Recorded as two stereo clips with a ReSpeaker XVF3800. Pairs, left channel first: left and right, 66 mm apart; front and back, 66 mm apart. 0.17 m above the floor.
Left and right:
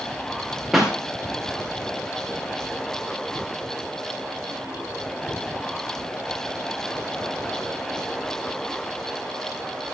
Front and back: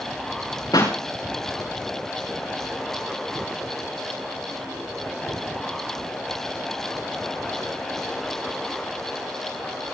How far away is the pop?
About 6.5 m.